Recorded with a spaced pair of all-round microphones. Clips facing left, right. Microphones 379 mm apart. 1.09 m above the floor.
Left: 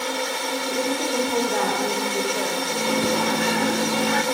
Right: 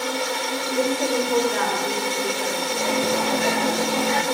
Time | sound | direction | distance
0.7 | a woman speaking | 35° left (ahead or behind) | 3.5 m
2.7 | a microwave | 25° left (ahead or behind) | 1.3 m